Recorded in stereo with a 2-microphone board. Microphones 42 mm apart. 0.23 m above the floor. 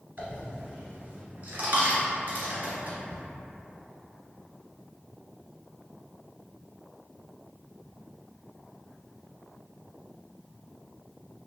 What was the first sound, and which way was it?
A dropped coin, 45° right (ahead or behind).